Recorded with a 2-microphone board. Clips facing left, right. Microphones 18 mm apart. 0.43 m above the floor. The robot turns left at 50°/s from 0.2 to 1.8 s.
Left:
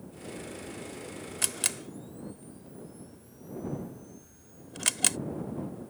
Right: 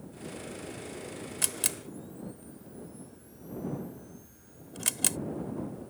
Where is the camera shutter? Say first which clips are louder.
Left 2 dB; 10° left (ahead or behind); by 5.2 s 25° left (ahead or behind).